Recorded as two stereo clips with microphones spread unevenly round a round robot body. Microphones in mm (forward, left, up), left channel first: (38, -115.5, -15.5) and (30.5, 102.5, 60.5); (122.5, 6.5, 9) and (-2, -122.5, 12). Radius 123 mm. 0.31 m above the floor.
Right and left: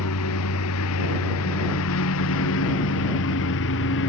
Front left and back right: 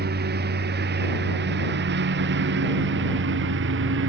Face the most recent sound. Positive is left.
turn(degrees=-125)